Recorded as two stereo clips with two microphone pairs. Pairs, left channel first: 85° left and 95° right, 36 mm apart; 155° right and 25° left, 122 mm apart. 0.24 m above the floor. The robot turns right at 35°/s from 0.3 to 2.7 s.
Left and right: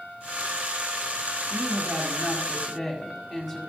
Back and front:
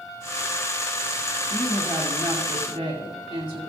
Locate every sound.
1.5 s a woman speaking: 50° right, 2.5 m; by 3.7 s 10° right, 2.5 m